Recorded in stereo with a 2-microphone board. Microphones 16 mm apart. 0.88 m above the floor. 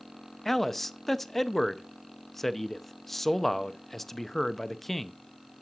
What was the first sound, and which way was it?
A man speaking, 15° left (ahead or behind).